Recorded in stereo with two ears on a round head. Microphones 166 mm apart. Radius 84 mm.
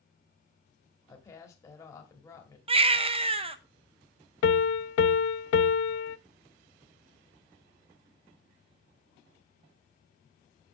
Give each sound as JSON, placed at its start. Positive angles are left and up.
{"t": 1.1, "sound": "a woman speaking", "side_deg": 15, "distance_m": 2.0}
{"t": 2.7, "sound": "a baby crying", "side_deg": -30, "distance_m": 0.6}
{"t": 4.4, "sound": "a piano", "side_deg": 70, "distance_m": 0.6}